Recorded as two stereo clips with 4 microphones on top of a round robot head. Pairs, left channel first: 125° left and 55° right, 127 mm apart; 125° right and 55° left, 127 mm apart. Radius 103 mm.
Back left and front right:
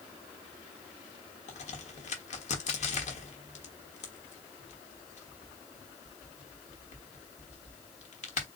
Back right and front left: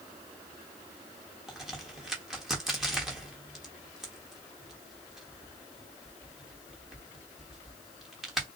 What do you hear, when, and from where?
1.5 s a crack: 140° left, 1.3 m